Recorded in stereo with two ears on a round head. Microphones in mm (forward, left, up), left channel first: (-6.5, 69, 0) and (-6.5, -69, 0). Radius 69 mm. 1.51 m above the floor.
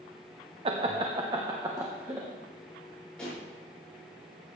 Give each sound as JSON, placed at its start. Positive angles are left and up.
{"t": 0.7, "sound": "laughter", "side_deg": -35, "distance_m": 0.7}
{"t": 3.2, "sound": "a pop", "side_deg": 5, "distance_m": 6.0}